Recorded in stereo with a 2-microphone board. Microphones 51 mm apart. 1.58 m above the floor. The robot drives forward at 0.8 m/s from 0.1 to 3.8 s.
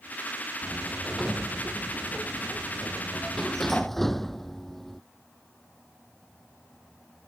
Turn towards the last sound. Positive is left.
turn(degrees=5)  # may be behind; listen again after turning